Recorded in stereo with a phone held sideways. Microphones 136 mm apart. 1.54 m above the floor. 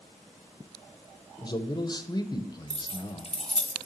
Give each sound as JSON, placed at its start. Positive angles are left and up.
{"t": 1.4, "sound": "a man speaking", "side_deg": 30, "distance_m": 0.8}
{"t": 2.7, "sound": "keys jangling", "side_deg": 45, "distance_m": 1.0}